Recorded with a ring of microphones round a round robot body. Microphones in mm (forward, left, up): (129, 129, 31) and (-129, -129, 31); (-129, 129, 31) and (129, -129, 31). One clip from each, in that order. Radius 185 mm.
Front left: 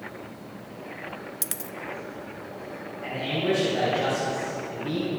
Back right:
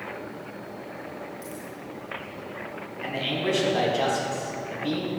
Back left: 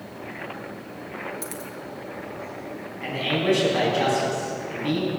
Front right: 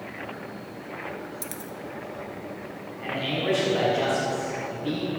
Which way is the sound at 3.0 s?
150° right.